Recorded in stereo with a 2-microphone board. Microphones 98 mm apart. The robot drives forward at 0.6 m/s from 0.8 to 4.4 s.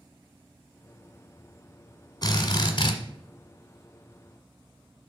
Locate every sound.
2.2 s a drill: 45° left (ahead or behind), 1.3 m; by 3.0 s 60° left (ahead or behind), 1.0 m